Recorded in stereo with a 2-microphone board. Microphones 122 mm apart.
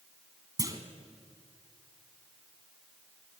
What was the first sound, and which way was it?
A clunk, 30° right (ahead or behind).